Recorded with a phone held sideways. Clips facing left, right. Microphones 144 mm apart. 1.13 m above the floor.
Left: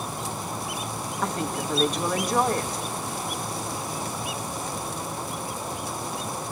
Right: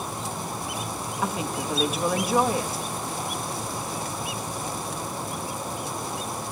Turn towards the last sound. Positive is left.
turn(degrees=-5)  # may be behind; listen again after turning